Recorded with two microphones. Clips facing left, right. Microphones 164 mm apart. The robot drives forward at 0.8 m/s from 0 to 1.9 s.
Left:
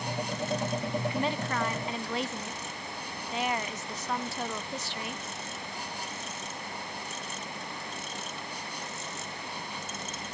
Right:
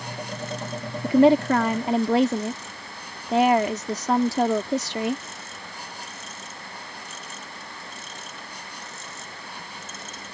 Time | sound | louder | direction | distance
1.0 | a woman speaking | right 20 dB | 85° right | ?